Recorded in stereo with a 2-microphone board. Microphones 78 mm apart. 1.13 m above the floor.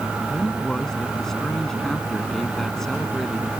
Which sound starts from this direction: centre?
A man speaking, at 0.3 s.